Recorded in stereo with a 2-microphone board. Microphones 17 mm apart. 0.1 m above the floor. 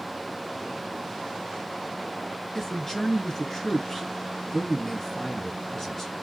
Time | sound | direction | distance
2.5 | a man speaking | 15° left (ahead or behind) | 1.6 m